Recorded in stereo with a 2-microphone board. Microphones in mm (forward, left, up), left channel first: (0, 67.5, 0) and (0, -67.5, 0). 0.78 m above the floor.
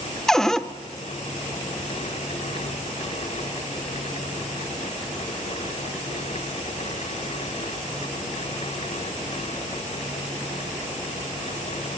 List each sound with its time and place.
0.3 s a cupboard door: 5° left (ahead or behind), 0.7 m